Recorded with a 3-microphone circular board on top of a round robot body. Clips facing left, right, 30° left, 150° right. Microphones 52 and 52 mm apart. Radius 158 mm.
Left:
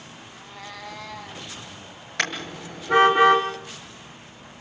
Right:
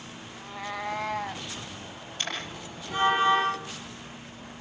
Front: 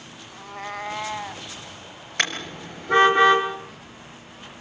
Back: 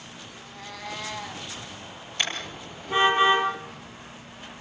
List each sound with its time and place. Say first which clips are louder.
0.3 s a cat meowing: right 6 dB, front 11 dB; straight ahead, 1.2 m; by 1.5 s 45° right, 2.5 m
2.2 s a car horn: left 7 dB, front 4 dB; 65° left, 4.5 m